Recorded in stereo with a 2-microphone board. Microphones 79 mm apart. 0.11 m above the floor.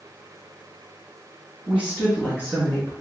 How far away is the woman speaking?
About 1.5 m.